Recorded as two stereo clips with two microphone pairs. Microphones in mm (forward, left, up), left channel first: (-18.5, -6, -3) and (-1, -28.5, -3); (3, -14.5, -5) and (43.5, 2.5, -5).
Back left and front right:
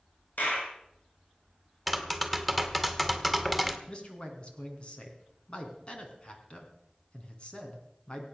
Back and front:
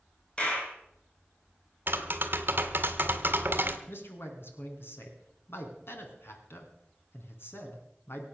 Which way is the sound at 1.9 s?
45° left.